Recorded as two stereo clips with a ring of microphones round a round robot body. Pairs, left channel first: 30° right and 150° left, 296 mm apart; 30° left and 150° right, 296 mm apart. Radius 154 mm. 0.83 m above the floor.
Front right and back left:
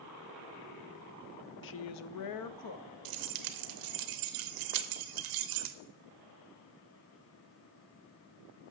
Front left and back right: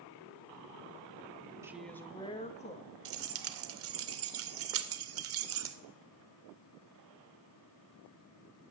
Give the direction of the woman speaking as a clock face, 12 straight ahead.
2 o'clock.